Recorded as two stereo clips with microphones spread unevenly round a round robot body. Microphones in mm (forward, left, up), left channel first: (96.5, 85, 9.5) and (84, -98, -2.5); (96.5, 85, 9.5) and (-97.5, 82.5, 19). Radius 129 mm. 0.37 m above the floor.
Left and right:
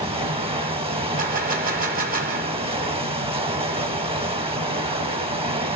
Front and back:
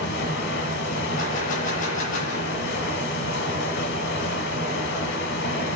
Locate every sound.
0.0 s running water: 35° right, 1.2 m
1.2 s a gunshot: 55° right, 1.2 m